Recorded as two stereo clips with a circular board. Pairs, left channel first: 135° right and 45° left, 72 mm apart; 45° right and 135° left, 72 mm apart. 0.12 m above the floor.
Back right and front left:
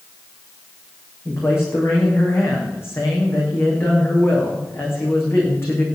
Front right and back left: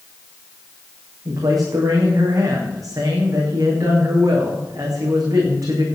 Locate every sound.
1.2 s a man speaking: 170° left, 7.5 m